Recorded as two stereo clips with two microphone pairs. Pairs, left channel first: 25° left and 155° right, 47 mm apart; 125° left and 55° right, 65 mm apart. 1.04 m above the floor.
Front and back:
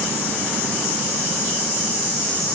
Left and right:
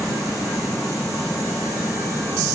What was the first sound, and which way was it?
Only background noise.